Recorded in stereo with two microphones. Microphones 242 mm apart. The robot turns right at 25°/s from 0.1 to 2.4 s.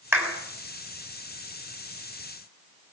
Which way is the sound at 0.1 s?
10° right (ahead or behind).